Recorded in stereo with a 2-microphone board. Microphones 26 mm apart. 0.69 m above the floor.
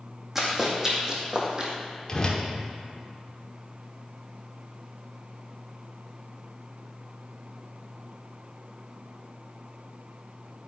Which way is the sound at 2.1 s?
25° left (ahead or behind).